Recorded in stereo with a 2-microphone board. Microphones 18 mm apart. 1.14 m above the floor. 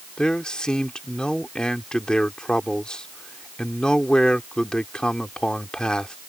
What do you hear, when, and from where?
0.2 s a man speaking: 55° left (ahead or behind)